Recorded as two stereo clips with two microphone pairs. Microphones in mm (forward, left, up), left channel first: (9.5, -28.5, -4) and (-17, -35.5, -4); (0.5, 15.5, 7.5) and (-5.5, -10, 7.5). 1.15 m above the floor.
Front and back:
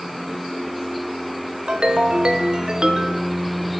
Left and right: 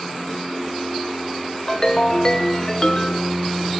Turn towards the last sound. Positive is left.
turn(degrees=145)